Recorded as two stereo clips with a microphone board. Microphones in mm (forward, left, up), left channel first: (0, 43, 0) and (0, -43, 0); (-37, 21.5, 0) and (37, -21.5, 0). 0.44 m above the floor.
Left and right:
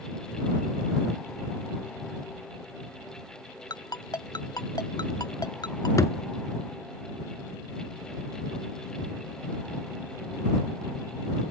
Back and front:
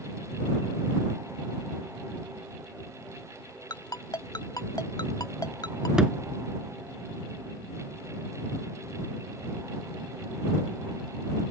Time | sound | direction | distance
3.7 | a ringtone | 115° left | ?
6.0 | a thud | 50° left | ?